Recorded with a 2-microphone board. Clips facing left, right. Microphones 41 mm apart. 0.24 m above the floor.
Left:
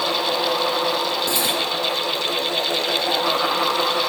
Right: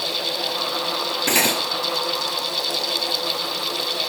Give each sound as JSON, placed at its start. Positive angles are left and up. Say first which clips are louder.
{"t": 1.3, "sound": "cutlery clinking", "louder": "right 2 dB", "side_deg": -70, "distance_m": 3.0}